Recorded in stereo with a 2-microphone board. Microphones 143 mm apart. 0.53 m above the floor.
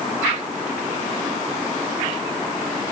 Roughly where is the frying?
No frying in this recording.